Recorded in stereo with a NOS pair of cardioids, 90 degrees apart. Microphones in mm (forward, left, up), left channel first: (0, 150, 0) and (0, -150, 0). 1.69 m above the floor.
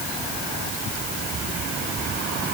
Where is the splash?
No splash in this recording.